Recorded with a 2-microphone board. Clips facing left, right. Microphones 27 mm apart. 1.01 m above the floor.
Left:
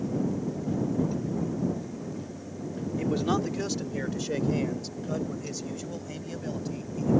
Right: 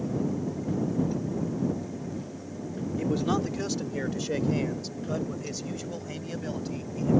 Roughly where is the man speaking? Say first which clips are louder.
Even; centre.